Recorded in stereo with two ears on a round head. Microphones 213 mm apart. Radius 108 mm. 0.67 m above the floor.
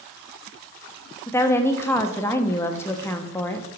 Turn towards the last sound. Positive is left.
turn(degrees=10)  # may be behind; listen again after turning